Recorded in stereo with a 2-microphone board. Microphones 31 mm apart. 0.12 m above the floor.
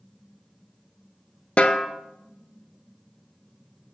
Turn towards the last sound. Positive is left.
turn(degrees=45)  # may be behind; listen again after turning